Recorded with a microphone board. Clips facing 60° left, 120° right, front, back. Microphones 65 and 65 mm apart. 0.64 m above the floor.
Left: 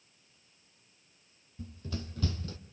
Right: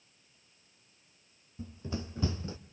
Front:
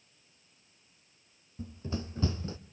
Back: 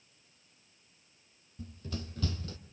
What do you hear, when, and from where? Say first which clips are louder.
1.6 s running footsteps: right 2 dB, front 4 dB; 55° right, 0.9 m